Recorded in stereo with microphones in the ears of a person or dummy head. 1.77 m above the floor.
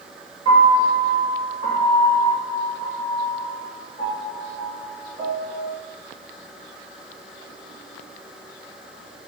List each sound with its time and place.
0.5 s a piano: 25° right (ahead or behind), 1.6 m